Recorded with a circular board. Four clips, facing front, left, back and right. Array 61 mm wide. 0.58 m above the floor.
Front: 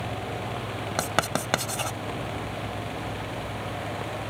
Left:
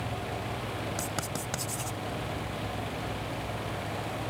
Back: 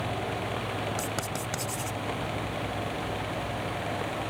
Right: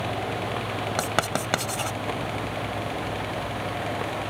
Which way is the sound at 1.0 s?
45° right.